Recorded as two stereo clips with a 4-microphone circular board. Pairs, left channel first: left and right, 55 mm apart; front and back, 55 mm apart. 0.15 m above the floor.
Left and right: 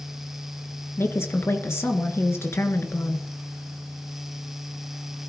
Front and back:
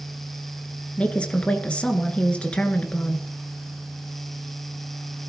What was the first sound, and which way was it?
A woman speaking, 65° left.